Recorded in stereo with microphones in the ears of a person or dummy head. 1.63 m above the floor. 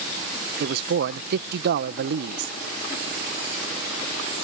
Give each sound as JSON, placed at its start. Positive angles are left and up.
{"t": 0.6, "sound": "a man speaking", "side_deg": -60}